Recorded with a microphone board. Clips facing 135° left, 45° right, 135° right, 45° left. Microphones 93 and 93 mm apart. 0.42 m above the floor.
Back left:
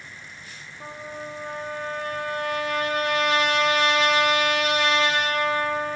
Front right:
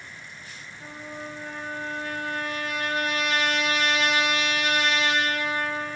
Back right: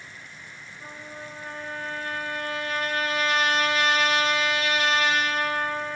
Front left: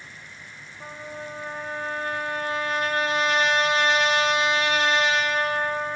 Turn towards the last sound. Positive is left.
turn(degrees=105)